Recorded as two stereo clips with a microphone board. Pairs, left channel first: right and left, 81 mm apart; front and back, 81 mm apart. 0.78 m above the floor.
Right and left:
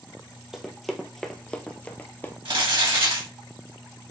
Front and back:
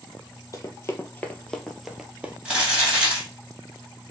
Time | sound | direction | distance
0.5 | running footsteps | 5° left | 0.9 m
2.5 | crumpling | 100° left | 2.5 m